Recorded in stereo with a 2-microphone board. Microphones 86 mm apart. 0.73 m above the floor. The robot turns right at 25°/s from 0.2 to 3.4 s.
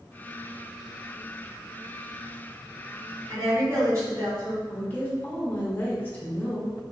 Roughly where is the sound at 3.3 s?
Right.